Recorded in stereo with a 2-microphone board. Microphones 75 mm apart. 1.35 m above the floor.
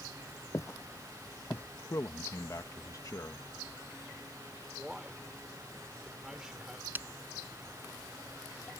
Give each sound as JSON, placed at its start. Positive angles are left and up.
{"t": 0.5, "sound": "footsteps", "side_deg": 40}
{"t": 1.9, "sound": "a man speaking", "side_deg": 45}
{"t": 4.8, "sound": "a man speaking", "side_deg": -10}
{"t": 7.0, "sound": "breaking glass", "side_deg": -25}